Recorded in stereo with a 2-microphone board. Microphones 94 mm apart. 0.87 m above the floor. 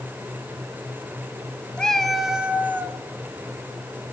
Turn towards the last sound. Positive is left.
turn(degrees=-30)  # may be behind; listen again after turning